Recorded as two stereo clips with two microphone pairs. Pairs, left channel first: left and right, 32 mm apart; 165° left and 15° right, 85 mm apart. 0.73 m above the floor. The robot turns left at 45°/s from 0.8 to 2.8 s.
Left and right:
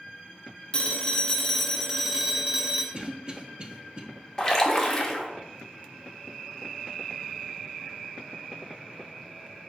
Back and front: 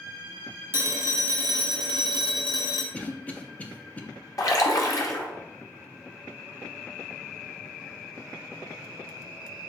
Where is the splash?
150° left, 0.8 m.